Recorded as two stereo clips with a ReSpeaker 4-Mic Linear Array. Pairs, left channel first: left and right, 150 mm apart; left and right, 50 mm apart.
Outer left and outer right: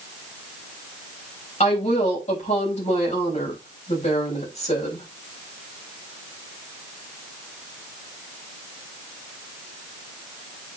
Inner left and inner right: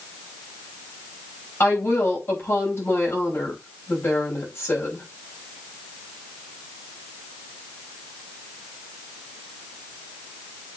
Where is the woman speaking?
45° left (ahead or behind), 6 m.